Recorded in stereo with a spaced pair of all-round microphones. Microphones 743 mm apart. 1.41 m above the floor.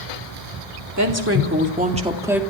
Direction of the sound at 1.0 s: 20° right (ahead or behind).